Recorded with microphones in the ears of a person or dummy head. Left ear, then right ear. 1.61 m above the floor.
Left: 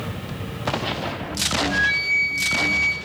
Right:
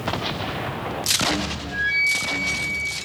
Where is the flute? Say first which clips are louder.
Right 1 dB; 50° left (ahead or behind), 4.5 m.